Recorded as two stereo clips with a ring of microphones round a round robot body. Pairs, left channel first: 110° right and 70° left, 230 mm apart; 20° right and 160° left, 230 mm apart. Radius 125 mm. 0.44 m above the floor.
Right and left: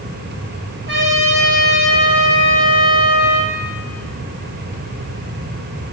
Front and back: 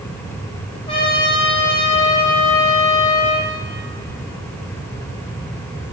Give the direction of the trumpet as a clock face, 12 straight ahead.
11 o'clock.